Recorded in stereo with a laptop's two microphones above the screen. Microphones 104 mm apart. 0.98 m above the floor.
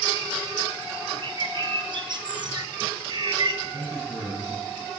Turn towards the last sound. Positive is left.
turn(degrees=-5)  # may be behind; listen again after turning